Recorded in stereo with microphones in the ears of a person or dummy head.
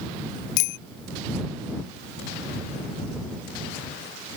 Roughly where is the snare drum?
No snare drum in this recording.